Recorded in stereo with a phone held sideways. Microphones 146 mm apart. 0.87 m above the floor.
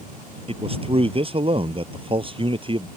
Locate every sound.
0.5 s a man speaking: 40° right (ahead or behind); by 2.9 s 35° right (ahead or behind)